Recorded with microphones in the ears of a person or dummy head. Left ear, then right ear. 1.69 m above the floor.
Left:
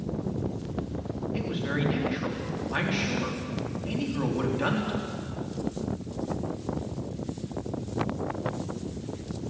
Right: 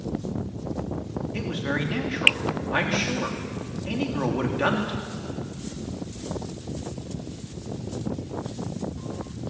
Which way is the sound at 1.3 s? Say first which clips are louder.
Right 3 dB; 15° right (ahead or behind).